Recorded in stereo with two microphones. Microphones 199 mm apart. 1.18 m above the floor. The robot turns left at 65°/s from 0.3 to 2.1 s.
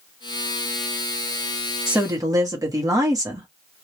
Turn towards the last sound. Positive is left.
turn(degrees=-15)  # may be behind; listen again after turning